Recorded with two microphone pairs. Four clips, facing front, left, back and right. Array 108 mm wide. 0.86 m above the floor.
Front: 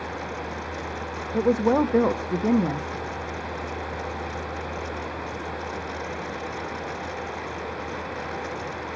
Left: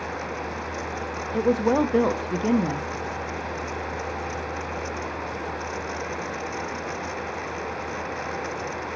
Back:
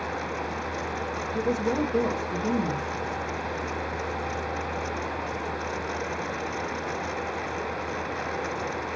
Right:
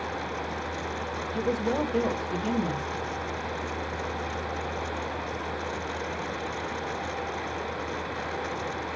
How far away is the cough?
No cough in this recording.